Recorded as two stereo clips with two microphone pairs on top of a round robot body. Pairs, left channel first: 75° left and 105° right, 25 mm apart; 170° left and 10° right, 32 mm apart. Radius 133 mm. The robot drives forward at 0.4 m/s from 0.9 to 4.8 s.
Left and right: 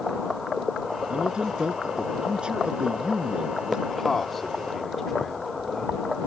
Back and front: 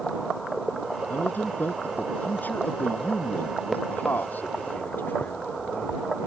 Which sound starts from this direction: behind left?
A man speaking, at 3.9 s.